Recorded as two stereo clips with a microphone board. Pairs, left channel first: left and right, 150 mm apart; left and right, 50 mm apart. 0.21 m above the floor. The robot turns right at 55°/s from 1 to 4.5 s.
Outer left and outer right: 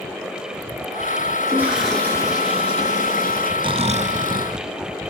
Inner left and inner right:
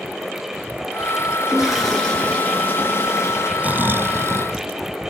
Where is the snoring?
150° right, 0.9 m; by 4.6 s 100° right, 0.9 m.